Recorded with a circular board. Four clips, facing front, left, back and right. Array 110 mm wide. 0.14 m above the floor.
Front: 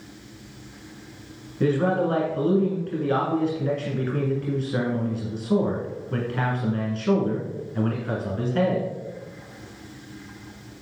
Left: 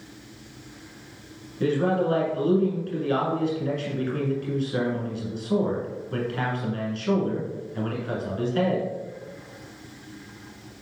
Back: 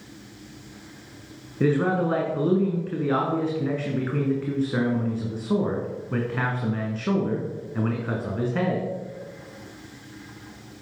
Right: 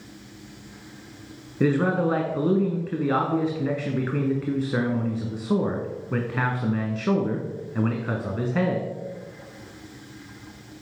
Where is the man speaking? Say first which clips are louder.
Right 1 dB, even; 110° right, 1.5 m.